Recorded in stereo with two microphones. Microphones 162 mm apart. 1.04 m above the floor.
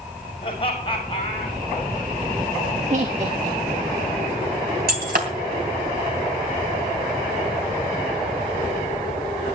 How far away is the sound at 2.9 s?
About 1.7 m.